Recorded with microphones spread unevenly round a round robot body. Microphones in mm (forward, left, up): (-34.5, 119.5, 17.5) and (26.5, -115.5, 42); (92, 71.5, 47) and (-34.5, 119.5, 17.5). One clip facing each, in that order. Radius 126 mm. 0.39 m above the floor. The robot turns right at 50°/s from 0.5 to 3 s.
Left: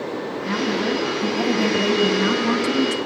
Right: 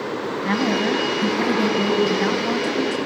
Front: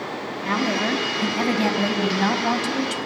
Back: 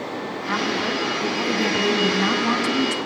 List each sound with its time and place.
0.5 s a woman speaking: 65° right, 4 m; by 3.0 s 60° left, 4 m